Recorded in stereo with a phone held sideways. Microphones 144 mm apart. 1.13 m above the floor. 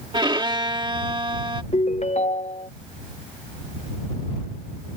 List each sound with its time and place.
0.1 s a violin: 35° right (ahead or behind)
1.7 s a ringtone: 50° left (ahead or behind)